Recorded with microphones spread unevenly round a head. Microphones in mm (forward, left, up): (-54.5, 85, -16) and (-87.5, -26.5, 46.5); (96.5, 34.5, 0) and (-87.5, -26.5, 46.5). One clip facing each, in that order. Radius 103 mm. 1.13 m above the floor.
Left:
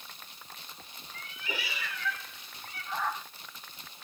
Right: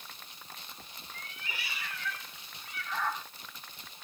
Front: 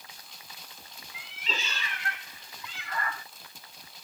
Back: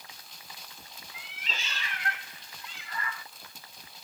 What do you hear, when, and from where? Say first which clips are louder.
1.1 s a cat meowing: left 6 dB, front 6 dB; 40° left; by 3.2 s 45° right